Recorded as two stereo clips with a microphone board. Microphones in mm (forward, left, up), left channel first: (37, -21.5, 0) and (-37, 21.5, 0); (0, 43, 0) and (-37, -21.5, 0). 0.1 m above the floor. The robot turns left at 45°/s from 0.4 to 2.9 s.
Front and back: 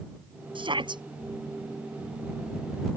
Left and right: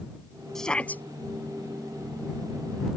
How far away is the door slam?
I don't hear a door slam.